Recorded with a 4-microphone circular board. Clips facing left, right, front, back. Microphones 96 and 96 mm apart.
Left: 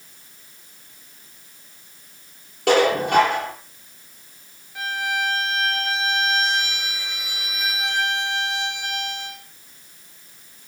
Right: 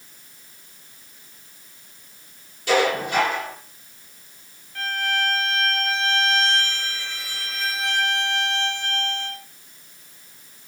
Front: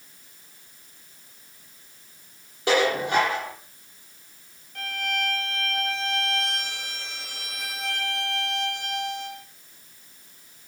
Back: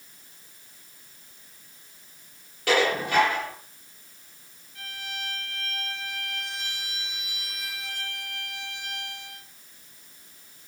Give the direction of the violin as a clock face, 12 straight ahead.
12 o'clock.